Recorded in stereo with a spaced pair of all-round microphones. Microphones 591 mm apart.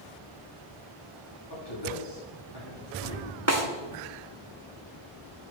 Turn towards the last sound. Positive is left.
turn(degrees=-25)  # may be behind; listen again after turning